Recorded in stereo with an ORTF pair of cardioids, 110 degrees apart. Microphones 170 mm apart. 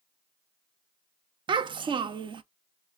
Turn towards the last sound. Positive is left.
turn(degrees=-30)